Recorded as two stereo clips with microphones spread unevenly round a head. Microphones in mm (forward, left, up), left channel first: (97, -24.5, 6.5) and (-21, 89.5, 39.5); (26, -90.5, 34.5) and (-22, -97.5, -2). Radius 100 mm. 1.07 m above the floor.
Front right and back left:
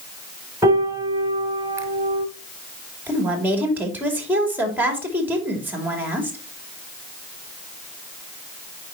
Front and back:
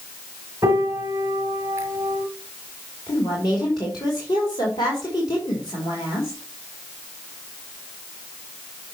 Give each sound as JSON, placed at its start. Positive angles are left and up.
{"t": 0.6, "sound": "a piano", "azimuth_deg": 95, "distance_m": 1.0}
{"t": 3.1, "sound": "a woman speaking", "azimuth_deg": 55, "distance_m": 3.0}